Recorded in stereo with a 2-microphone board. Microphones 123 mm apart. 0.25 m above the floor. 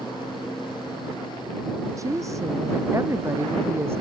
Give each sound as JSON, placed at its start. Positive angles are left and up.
{"t": 2.0, "sound": "a woman speaking", "side_deg": -25}